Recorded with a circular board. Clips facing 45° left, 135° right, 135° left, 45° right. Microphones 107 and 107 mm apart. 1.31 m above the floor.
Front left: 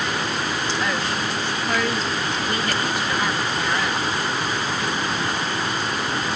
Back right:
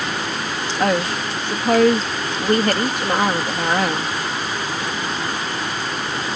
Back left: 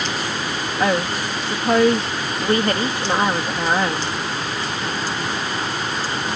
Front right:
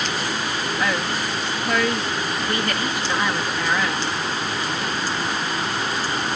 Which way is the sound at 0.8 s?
170° right.